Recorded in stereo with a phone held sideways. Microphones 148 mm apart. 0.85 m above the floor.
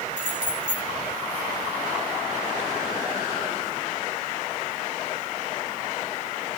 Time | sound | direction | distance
0.2 | keys jangling | 5° right (ahead or behind) | 3 m